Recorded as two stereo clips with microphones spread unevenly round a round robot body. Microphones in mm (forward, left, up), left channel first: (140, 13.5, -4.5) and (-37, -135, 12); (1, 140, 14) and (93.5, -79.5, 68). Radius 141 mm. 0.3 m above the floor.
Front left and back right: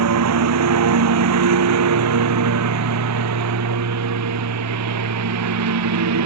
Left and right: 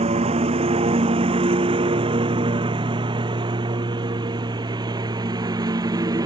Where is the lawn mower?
135° right; by 6.3 s 145° right.